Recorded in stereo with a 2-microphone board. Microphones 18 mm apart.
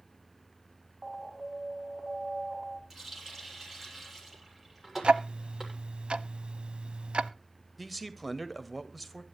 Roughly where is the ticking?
Right.